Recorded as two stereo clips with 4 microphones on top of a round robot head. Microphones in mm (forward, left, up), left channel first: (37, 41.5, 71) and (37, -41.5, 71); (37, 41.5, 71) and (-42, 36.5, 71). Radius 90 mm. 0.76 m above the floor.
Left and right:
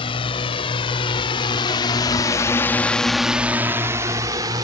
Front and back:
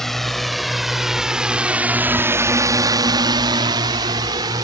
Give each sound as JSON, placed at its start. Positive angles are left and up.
{"t": 0.0, "sound": "a drone", "azimuth_deg": 90}